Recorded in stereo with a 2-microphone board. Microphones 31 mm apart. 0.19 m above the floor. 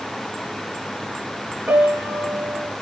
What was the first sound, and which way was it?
A piano, 60° right (ahead or behind).